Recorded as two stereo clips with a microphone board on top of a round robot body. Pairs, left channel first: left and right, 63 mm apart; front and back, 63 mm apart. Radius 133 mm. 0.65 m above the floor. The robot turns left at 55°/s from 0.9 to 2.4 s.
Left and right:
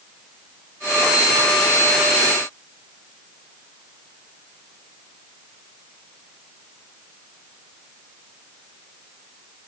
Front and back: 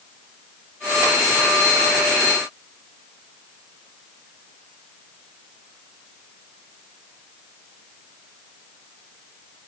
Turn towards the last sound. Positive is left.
No sound to turn to.